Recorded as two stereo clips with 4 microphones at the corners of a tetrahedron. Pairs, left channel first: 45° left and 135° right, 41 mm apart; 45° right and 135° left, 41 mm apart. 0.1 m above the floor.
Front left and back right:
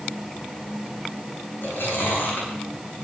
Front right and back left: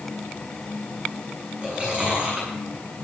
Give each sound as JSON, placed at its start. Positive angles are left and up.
{"t": 1.6, "sound": "chewing", "azimuth_deg": 70, "distance_m": 9.0}